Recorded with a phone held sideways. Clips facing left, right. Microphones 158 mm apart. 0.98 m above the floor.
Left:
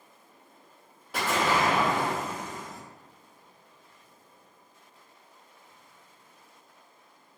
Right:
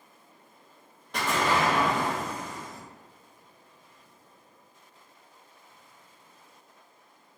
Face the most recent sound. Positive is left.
turn(degrees=5)  # may be behind; listen again after turning